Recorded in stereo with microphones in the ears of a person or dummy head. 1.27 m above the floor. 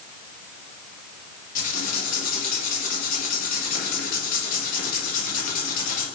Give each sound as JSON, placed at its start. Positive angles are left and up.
{"t": 1.6, "sound": "writing", "side_deg": 50, "distance_m": 1.6}